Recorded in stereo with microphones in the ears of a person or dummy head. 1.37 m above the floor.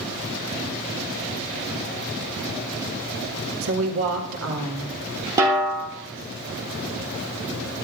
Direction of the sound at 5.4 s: 20° right (ahead or behind).